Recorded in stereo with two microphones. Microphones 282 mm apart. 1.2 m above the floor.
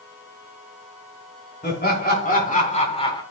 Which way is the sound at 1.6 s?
35° left (ahead or behind).